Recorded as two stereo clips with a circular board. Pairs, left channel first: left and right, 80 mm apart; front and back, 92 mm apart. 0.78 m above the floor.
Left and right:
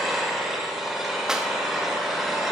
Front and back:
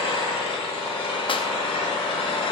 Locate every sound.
0.0 s an engine running: straight ahead, 1.3 m
1.3 s a clap: 5° right, 0.5 m